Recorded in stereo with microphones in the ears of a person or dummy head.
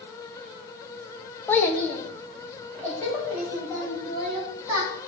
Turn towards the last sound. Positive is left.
turn(degrees=15)  # may be behind; listen again after turning